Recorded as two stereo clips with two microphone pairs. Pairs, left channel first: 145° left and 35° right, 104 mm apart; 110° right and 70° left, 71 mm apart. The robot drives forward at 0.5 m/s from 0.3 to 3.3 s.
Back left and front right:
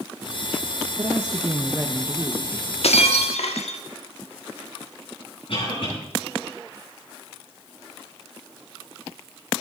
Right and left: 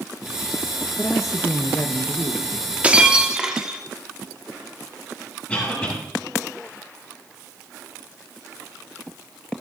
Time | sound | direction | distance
1.0 | a woman speaking | 70° right | 0.8 m
2.8 | breaking glass | 140° left | 1.0 m
5.5 | a cough | 175° left | 7 m